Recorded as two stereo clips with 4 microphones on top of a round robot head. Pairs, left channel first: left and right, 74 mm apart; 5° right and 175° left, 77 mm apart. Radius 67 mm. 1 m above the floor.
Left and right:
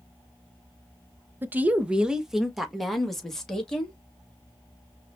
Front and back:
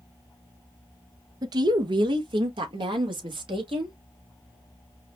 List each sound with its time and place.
1.4 s a woman speaking: 150° right, 0.8 m; by 4.0 s 170° left, 2 m